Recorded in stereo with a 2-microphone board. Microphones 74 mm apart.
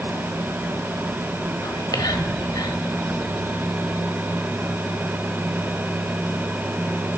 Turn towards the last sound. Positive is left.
turn(degrees=65)  # may be behind; listen again after turning